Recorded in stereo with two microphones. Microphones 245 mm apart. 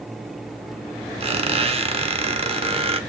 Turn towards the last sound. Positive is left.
turn(degrees=-25)  # may be behind; listen again after turning